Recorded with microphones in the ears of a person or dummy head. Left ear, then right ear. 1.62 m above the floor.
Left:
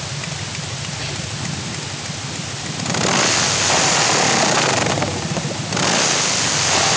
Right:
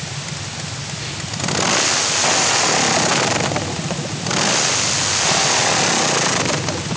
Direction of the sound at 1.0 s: 45° left (ahead or behind).